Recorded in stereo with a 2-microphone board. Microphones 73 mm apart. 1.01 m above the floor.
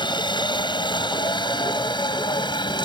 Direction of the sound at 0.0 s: 75° left (ahead or behind).